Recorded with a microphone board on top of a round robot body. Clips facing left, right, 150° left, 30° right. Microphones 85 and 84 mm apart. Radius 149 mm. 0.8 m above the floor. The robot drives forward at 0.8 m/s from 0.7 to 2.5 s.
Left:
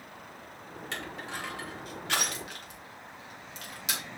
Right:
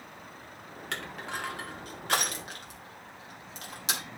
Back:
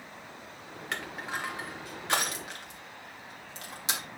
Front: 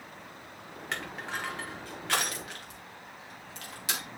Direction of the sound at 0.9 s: 120° right.